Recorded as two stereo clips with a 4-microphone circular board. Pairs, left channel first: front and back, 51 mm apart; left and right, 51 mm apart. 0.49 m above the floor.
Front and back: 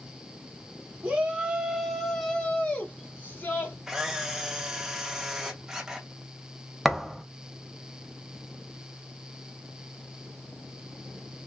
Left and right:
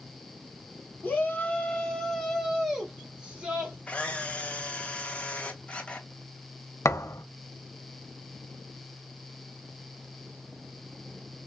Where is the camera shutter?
115° left, 0.7 m.